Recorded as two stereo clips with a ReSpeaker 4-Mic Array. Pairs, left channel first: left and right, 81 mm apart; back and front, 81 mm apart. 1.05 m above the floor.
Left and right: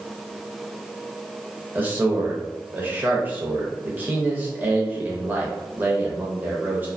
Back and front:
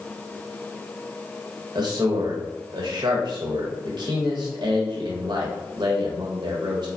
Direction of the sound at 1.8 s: 20° right.